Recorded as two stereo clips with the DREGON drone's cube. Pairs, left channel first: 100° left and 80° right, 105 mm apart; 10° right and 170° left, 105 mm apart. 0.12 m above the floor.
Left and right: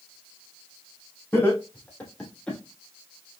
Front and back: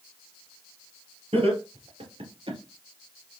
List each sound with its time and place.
1.3 s laughter: 170° left, 2.5 m; by 2.6 s 175° right, 2.5 m